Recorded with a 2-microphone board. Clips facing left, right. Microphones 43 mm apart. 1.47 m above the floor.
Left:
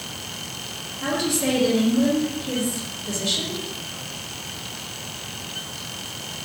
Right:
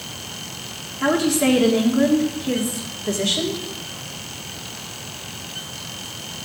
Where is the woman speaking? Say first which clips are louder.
Right 6 dB; 65° right (ahead or behind), 2.5 m.